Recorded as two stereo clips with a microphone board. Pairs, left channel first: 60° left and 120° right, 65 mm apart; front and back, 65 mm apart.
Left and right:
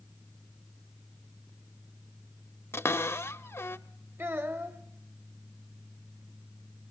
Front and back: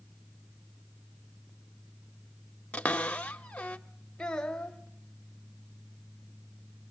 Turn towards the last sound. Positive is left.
turn(degrees=-80)